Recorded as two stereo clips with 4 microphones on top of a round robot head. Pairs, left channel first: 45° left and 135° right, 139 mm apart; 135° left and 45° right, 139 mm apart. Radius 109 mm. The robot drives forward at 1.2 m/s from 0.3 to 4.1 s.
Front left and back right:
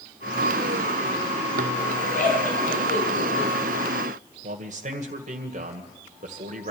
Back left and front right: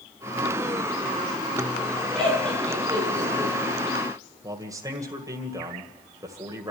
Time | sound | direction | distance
2.1 | laughter | 50° left | 9 m
4.4 | a man speaking | 110° right | 2 m